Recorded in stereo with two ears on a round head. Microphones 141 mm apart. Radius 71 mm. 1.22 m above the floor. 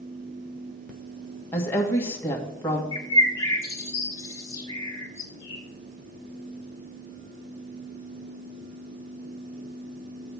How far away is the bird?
About 1.9 m.